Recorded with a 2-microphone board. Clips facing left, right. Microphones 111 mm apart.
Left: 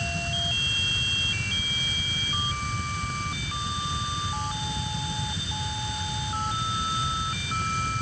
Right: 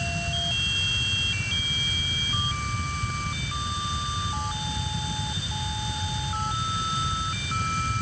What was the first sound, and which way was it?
Only background noise.